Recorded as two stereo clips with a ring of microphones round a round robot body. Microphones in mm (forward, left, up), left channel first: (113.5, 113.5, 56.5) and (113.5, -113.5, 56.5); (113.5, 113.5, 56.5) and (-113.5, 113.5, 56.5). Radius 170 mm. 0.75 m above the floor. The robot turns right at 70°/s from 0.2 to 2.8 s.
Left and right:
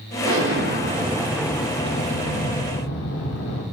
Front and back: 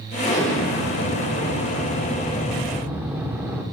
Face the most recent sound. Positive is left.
turn(degrees=100)